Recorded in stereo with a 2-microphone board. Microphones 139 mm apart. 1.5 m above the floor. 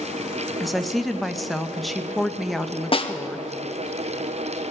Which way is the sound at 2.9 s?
40° left (ahead or behind).